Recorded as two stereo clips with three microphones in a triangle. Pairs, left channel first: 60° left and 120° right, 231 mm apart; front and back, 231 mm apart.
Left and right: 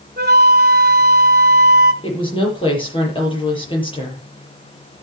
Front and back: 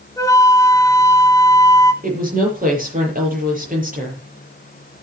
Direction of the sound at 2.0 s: 130° left.